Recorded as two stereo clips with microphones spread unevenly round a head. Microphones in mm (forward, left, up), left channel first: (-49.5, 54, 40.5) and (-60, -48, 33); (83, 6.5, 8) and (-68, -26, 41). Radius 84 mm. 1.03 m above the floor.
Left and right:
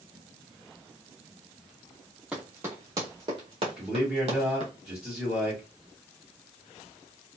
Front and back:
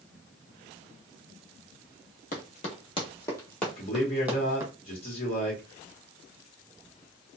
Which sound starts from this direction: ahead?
Running footsteps, at 2.3 s.